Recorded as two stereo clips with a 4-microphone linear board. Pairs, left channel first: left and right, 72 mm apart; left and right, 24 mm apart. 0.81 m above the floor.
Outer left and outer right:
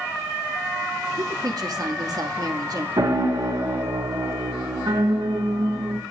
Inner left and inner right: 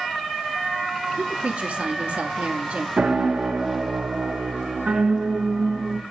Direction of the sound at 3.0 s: 80° right.